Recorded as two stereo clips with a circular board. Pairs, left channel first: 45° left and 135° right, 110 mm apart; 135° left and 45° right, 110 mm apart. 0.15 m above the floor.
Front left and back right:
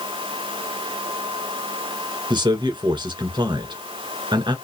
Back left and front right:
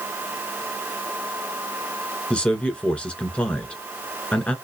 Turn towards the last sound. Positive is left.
turn(degrees=-150)